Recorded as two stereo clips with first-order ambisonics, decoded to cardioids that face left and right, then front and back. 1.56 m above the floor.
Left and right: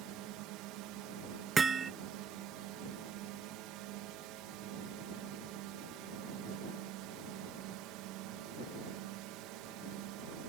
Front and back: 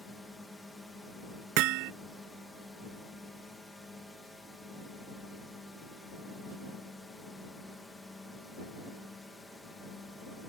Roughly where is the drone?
Right.